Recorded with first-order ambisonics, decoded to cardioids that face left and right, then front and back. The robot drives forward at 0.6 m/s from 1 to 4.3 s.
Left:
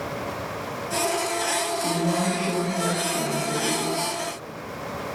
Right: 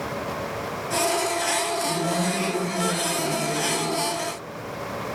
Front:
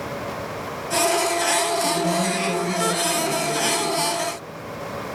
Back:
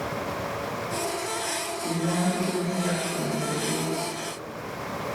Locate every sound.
1.8 s a woman speaking: 25° left, 1.2 m; by 3.9 s 130° left, 0.9 m